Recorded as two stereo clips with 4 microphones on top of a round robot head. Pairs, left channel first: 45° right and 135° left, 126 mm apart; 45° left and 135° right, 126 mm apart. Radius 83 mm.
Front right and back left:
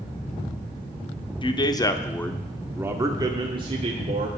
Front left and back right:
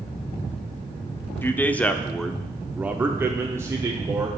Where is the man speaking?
20° right, 1.1 m; by 4.3 s 165° left, 1.5 m.